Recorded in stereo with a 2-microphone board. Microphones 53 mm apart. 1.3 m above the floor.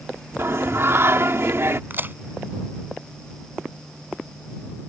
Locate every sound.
0.4 s singing: 55° right (ahead or behind)
1.9 s a crack: 40° right (ahead or behind)